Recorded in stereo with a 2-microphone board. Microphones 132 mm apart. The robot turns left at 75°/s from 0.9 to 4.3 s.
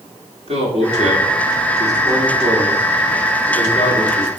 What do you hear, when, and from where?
0.5 s a man speaking: 60° right (ahead or behind), 2.5 m; by 4.3 s 35° left (ahead or behind), 2.5 m